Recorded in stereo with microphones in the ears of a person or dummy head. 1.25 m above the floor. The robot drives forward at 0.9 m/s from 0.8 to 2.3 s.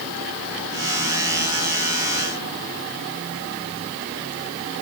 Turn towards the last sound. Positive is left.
No sound to turn to.